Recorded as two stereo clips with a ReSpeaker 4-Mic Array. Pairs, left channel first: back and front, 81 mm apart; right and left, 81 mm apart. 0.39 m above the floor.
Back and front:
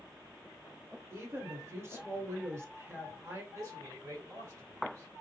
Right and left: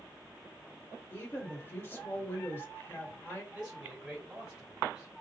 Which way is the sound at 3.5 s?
15° left.